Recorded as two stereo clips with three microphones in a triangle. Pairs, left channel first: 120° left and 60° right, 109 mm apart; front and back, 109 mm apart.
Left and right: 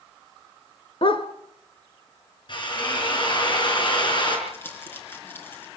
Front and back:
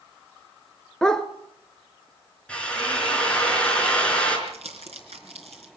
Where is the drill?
80° left, 5 m.